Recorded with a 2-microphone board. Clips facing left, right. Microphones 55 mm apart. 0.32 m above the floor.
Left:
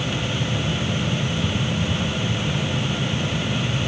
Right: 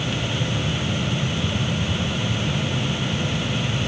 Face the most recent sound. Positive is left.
No sound to turn to.